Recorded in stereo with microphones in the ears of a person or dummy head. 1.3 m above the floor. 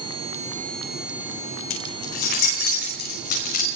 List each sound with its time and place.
1.7 s keys jangling: 70° left (ahead or behind), 4.5 m; by 3.6 s 55° left (ahead or behind), 6 m